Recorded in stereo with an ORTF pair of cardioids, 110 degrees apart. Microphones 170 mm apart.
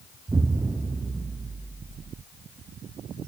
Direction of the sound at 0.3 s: 15° right.